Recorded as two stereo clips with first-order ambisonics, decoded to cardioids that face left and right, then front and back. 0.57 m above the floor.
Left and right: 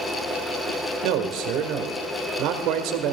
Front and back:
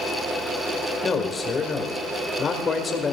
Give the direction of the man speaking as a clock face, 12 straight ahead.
2 o'clock.